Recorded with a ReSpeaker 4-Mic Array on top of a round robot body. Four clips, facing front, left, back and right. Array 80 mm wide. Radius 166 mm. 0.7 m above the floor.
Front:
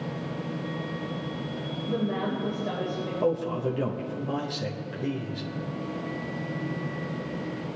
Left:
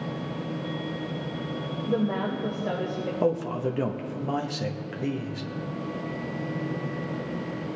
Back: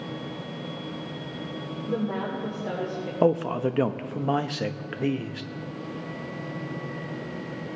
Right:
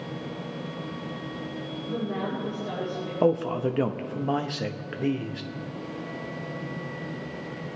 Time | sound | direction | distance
1.9 | a woman speaking | 130° left | 3 m
3.2 | a man speaking | 160° right | 1.1 m